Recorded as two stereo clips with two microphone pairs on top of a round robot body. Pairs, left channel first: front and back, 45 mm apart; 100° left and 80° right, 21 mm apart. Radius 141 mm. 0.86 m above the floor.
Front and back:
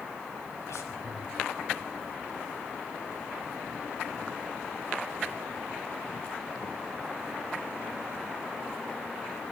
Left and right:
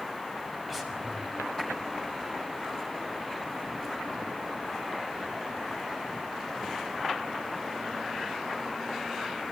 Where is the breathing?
10° left, 6 m.